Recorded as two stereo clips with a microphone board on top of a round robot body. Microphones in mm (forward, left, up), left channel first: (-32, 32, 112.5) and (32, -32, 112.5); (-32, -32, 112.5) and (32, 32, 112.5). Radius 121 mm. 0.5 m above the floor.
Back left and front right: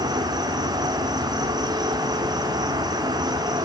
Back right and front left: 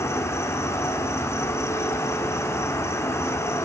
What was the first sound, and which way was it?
An insect, 80° right.